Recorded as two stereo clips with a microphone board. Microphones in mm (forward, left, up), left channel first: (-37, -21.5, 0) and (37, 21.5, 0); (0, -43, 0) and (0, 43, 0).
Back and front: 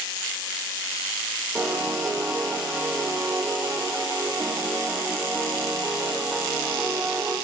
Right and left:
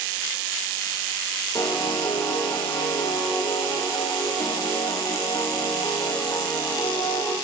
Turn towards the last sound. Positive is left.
turn(degrees=-50)